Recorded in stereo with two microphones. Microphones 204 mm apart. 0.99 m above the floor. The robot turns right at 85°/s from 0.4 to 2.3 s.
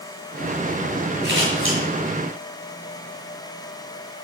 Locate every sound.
1.2 s scissors: 55° right (ahead or behind), 5.5 m; by 1.8 s 75° right (ahead or behind), 5.5 m